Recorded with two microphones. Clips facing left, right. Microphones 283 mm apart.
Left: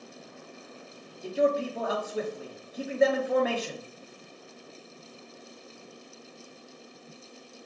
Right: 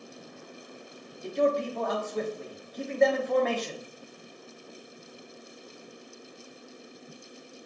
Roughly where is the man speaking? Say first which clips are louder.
Even; centre.